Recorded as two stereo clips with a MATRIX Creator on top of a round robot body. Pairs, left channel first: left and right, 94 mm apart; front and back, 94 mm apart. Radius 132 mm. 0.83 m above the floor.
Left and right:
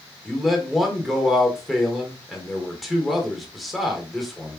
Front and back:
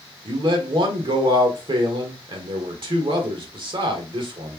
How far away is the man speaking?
About 1.5 m.